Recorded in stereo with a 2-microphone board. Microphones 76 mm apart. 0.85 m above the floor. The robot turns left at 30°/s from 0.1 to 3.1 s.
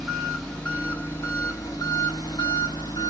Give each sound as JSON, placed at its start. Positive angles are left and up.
{"t": 0.0, "sound": "an engine running", "azimuth_deg": 180, "distance_m": 2.5}